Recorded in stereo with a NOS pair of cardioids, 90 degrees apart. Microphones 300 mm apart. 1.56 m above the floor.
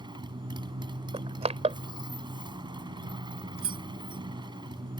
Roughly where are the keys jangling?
Ahead right.